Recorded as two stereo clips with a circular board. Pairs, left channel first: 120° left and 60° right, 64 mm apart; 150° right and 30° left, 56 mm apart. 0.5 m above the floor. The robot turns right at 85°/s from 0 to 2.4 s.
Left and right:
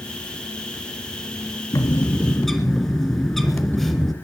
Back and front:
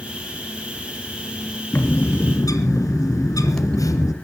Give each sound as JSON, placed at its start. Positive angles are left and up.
{"t": 1.7, "sound": "a bird", "azimuth_deg": 150, "distance_m": 2.0}